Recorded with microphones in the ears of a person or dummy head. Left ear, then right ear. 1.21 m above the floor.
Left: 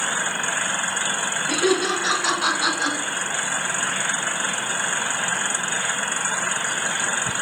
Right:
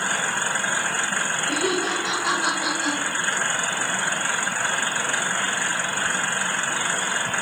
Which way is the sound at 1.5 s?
75° left (ahead or behind).